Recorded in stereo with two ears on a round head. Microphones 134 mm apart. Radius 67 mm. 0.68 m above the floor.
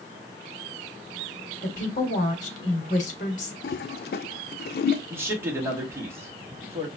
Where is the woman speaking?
55° left (ahead or behind), 2 m.